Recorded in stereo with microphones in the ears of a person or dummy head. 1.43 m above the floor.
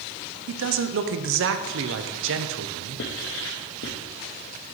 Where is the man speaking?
65° right (ahead or behind), 0.5 m.